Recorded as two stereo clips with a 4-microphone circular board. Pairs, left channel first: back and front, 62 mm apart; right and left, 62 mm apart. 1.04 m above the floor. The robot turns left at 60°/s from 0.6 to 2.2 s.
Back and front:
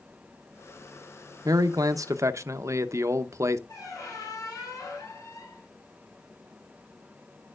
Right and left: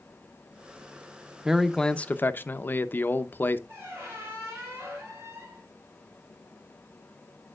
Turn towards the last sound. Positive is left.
turn(degrees=145)